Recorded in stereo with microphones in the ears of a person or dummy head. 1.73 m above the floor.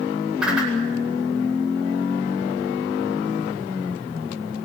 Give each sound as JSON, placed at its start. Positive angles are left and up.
{"t": 0.4, "sound": "a whoosh", "side_deg": -5, "distance_m": 8.5}